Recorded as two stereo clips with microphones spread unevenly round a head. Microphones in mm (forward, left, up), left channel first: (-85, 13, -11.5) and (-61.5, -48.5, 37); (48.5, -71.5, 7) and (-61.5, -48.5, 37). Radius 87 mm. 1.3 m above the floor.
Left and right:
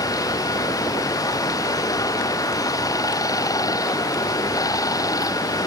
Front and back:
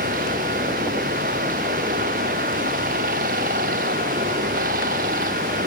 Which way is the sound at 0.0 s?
140° left.